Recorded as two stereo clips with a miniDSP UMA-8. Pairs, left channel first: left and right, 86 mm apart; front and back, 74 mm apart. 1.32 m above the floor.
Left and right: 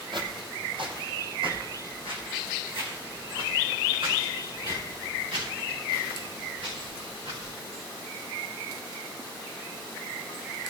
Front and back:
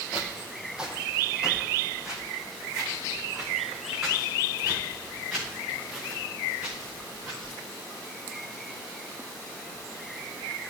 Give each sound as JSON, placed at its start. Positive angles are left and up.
{"t": 0.1, "sound": "footsteps", "azimuth_deg": -105, "distance_m": 3.0}